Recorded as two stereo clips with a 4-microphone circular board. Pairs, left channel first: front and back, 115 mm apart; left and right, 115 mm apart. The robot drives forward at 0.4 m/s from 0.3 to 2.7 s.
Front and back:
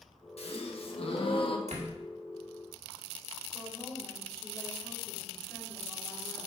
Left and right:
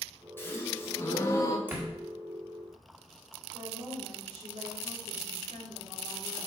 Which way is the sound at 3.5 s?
80° right.